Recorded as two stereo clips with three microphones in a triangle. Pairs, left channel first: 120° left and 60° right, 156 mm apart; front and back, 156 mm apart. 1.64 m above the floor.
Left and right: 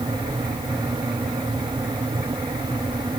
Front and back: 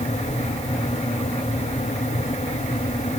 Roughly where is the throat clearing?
No throat clearing in this recording.